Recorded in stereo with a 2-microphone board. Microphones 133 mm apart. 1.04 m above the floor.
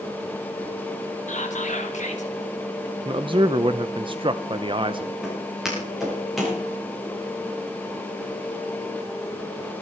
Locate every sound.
1.3 s whispering: 65° left (ahead or behind), 3 m
3.0 s a man speaking: 40° right (ahead or behind), 0.6 m
5.2 s footsteps: 5° right (ahead or behind), 7.5 m; by 6.6 s centre (ahead or behind), 8 m